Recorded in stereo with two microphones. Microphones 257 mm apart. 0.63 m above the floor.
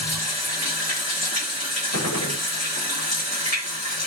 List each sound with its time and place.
0.0 s running water: 70° left (ahead or behind), 1.7 m
1.9 s a gunshot: 75° left (ahead or behind), 0.7 m